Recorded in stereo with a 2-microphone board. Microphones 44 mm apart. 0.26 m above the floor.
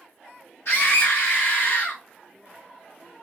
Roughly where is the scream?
Left.